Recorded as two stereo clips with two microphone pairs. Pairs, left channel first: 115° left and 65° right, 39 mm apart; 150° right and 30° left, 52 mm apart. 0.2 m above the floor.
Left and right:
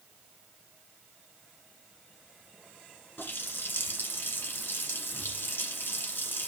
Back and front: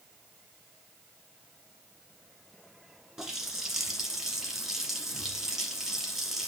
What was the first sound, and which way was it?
A running tap, 110° left.